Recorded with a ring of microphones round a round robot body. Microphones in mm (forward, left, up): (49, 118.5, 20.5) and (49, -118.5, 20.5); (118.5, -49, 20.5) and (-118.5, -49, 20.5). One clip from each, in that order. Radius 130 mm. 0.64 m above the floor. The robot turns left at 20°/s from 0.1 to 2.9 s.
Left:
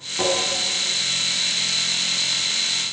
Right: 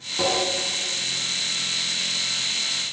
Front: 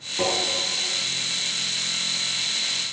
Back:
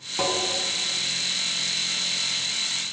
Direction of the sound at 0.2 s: 170° left.